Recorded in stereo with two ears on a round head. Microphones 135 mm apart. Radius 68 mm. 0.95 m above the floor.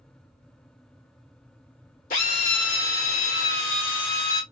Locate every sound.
2.1 s a drill: 55° left (ahead or behind), 1.8 m